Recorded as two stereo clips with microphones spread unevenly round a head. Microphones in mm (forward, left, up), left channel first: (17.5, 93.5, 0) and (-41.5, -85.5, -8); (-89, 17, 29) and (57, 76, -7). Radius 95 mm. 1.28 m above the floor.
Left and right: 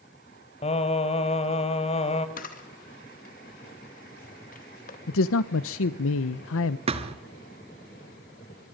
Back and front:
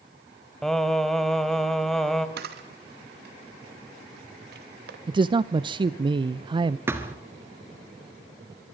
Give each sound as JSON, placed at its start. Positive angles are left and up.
{"t": 0.6, "sound": "singing", "azimuth_deg": 125, "distance_m": 1.9}
{"t": 2.4, "sound": "a camera shutter", "azimuth_deg": 20, "distance_m": 2.5}
{"t": 5.1, "sound": "a man speaking", "azimuth_deg": 85, "distance_m": 0.7}
{"t": 6.9, "sound": "a thud", "azimuth_deg": -65, "distance_m": 1.5}